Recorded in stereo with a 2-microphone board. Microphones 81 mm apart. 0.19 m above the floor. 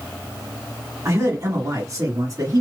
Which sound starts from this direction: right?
A man speaking, at 1.1 s.